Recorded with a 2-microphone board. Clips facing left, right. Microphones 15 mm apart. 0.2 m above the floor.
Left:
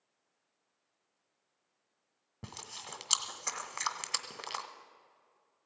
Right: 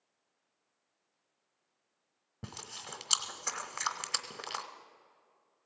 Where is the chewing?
Centre (ahead or behind), 0.9 m.